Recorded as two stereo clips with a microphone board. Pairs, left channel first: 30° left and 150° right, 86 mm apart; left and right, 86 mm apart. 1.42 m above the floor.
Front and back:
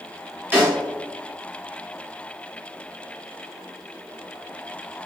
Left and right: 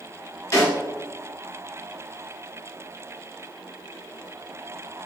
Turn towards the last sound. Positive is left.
turn(degrees=145)